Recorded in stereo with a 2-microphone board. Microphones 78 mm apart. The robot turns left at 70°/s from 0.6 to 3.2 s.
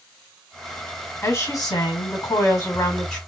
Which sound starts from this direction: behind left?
A woman speaking, at 1.2 s.